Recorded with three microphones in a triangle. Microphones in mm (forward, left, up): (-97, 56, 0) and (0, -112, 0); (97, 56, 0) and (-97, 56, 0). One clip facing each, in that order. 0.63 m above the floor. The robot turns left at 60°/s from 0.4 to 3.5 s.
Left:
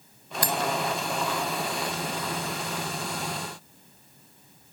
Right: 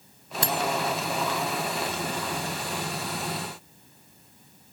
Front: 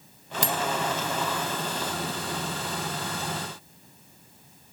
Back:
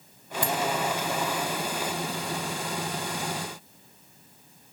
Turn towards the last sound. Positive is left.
turn(degrees=180)